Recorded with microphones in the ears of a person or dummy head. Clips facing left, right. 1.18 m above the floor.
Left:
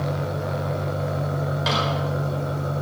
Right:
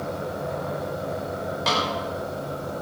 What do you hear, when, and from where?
0.0 s an engine running: 80° left, 7.5 m
1.7 s a snare drum: 5° left (ahead or behind), 4.5 m